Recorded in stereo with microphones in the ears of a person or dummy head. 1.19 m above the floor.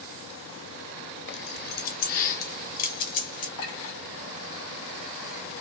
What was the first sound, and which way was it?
Keys jangling, 60° left (ahead or behind).